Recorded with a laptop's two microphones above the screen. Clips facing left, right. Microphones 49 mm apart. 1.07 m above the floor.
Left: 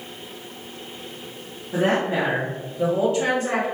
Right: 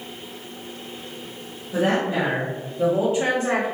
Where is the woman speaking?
50° left (ahead or behind), 0.9 m; by 3.6 s 35° right (ahead or behind), 1.3 m.